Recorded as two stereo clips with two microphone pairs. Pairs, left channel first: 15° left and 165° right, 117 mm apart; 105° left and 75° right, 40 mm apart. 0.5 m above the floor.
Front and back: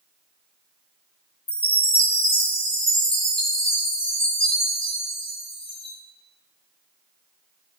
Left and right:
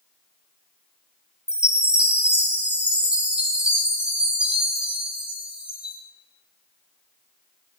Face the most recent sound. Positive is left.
turn(degrees=-10)